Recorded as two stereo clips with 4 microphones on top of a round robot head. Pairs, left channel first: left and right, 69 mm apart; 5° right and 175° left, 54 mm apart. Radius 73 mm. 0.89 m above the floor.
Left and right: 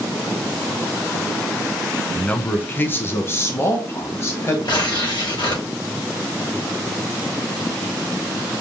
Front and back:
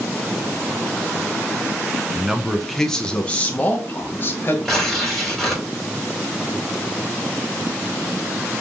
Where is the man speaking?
140° left, 0.8 m; by 4.5 s 45° left, 1.6 m.